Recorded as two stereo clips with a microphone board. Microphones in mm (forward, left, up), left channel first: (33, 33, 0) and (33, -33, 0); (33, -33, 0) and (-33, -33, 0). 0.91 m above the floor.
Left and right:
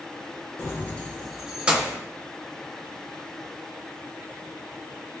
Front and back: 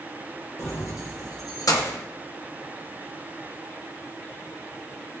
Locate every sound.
0.6 s keys jangling: 45° left, 0.6 m; by 2.0 s 30° right, 0.7 m